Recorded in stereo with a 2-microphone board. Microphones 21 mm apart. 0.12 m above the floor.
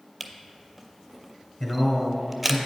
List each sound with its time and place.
0.2 s a camera shutter: 10° right (ahead or behind), 0.6 m
1.6 s a man speaking: 10° left (ahead or behind), 1.2 m